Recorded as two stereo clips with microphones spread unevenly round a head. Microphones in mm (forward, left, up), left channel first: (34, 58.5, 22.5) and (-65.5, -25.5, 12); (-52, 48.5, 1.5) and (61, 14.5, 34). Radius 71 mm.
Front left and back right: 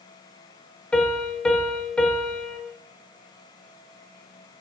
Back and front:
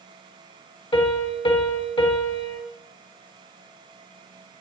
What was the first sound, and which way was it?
A piano, 120° left.